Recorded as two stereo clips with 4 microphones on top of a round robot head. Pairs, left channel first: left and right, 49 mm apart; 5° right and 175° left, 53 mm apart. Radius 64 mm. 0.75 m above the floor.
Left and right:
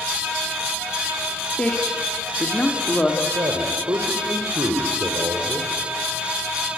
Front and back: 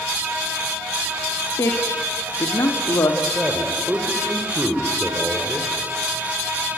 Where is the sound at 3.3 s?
110° right, 2.5 m.